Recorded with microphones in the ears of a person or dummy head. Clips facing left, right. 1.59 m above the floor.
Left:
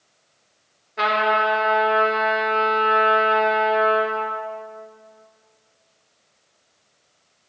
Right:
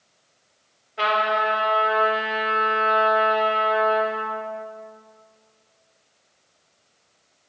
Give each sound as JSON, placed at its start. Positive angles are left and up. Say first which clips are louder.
{"t": 1.0, "sound": "a trumpet", "louder": "left 2 dB", "side_deg": 70, "distance_m": 4.5}